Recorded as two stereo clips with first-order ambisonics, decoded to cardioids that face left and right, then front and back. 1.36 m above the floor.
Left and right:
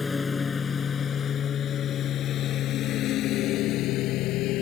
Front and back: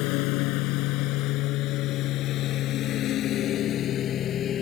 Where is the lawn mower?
15° left; by 4.6 s 55° left.